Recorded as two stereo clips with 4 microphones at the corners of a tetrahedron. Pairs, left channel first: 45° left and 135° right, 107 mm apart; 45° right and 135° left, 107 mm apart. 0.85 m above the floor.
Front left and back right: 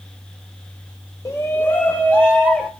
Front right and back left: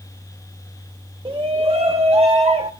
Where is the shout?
105° left, 0.6 m; by 2.7 s 130° left, 1.4 m.